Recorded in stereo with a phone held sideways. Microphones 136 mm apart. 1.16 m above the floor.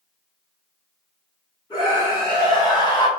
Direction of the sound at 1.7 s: 30° left (ahead or behind).